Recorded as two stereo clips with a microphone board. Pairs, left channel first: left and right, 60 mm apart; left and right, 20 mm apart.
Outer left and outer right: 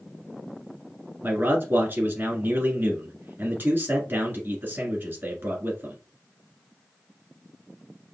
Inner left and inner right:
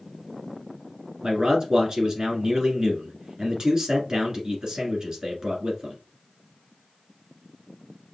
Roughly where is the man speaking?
Right.